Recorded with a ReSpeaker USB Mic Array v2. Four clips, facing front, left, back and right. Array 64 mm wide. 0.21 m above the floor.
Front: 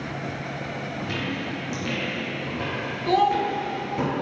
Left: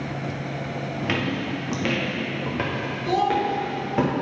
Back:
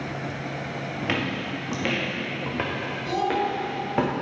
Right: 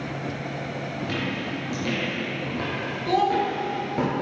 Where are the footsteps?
140° left, 2 m; by 4.1 s 155° left, 4 m.